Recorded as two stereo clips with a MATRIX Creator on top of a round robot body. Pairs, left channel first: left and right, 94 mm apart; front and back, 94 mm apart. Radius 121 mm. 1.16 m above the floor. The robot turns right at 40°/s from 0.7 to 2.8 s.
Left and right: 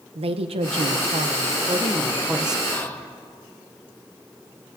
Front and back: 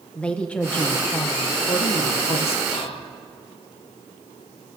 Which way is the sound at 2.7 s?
15° left.